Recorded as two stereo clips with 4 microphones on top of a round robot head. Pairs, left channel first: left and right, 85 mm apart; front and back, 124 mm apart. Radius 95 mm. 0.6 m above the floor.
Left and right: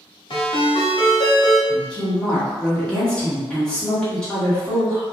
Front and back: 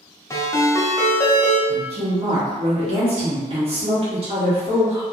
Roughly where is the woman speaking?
Behind.